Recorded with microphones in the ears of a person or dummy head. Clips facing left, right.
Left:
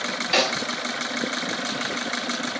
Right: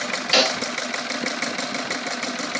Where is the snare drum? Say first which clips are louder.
Right 2 dB; 20° right (ahead or behind), 1.3 m.